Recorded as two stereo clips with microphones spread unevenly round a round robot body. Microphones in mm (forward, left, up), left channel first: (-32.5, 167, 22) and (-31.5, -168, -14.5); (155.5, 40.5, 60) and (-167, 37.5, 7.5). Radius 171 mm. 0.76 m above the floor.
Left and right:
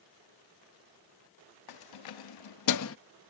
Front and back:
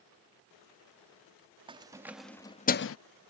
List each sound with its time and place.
1.7 s keys jangling: 110° left; by 3.0 s 40° left